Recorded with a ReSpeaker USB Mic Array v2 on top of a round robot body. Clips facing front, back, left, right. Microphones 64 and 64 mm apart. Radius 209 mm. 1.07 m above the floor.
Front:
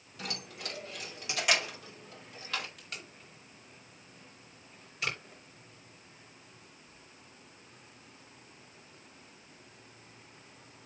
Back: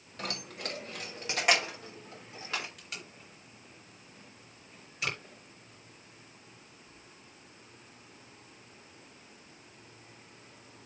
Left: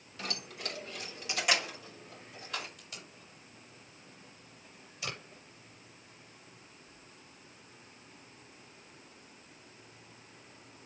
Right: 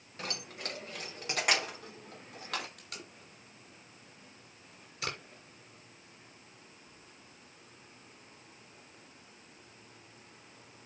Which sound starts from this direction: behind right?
Keys jangling, at 0.2 s.